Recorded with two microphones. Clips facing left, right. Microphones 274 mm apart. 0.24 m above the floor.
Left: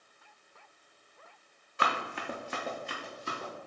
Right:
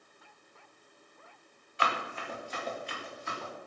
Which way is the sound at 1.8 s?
50° left (ahead or behind).